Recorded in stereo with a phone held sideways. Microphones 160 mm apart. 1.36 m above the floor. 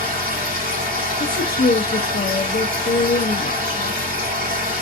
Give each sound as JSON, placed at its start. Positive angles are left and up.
{"t": 0.0, "sound": "a machine running", "side_deg": -60, "distance_m": 2.5}
{"t": 1.2, "sound": "a woman speaking", "side_deg": 65, "distance_m": 0.7}